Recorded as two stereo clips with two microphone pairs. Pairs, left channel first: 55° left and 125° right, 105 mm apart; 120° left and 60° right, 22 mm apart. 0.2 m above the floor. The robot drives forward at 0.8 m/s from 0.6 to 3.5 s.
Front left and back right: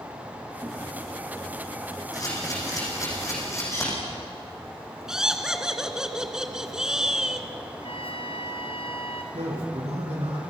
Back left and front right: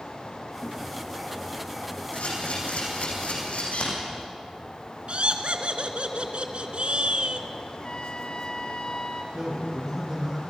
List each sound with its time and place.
2.1 s a camera shutter: 110° left, 9.5 m; by 3.9 s 115° left, 9.5 m
5.1 s laughter: 40° right, 3 m
7.8 s a trumpet: 80° left, 1.8 m
9.3 s a man speaking: 125° right, 9.5 m